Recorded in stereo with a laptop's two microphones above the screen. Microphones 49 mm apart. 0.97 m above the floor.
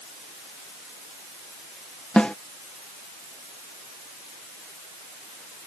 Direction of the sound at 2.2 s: 20° left (ahead or behind).